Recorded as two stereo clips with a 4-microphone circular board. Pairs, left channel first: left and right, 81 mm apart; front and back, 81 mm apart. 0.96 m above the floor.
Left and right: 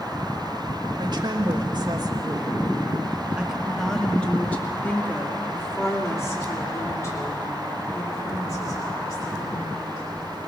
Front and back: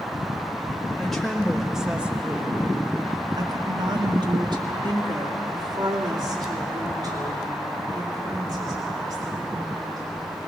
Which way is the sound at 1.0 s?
85° right.